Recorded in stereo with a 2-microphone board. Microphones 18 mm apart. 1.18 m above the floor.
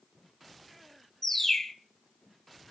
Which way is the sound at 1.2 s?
20° left (ahead or behind).